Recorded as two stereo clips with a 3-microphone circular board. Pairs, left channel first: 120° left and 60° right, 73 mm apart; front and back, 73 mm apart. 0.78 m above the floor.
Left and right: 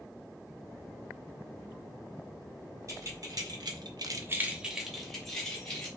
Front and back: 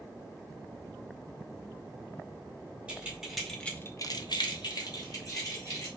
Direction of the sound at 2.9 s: 100° right.